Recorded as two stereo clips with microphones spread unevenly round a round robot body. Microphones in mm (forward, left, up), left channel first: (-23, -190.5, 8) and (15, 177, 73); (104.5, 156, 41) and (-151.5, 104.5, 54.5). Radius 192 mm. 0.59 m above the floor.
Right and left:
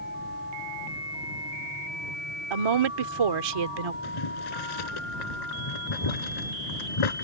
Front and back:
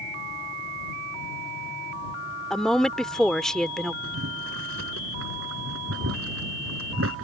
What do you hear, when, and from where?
2.5 s a woman speaking: 100° left
4.0 s boiling: 115° right